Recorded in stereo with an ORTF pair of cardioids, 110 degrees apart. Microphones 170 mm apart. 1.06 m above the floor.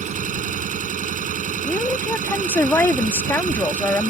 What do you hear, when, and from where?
0.0 s an engine running: 45° right
1.6 s a woman speaking: 15° left